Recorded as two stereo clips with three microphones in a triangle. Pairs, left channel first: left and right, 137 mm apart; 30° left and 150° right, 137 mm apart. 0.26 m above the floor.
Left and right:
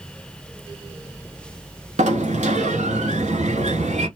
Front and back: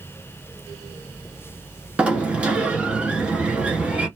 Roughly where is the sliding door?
Right.